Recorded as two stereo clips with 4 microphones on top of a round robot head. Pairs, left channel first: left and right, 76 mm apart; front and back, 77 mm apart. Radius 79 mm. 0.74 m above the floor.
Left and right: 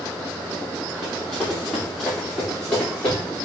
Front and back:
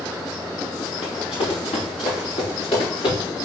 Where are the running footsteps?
5° left, 3.5 m; by 3.2 s 15° left, 5 m.